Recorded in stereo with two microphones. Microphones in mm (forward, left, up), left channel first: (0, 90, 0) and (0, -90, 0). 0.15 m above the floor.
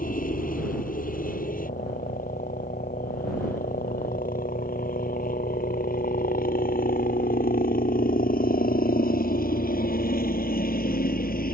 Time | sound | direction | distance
0.0 | a helicopter | 50° left (ahead or behind) | ?